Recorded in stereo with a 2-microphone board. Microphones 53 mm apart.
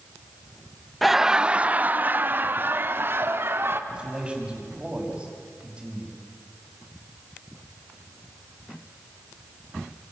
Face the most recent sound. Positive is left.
turn(degrees=-15)  # may be behind; listen again after turning